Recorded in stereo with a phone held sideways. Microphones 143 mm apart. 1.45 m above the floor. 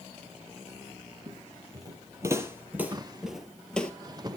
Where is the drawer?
30° right (ahead or behind), 0.7 m.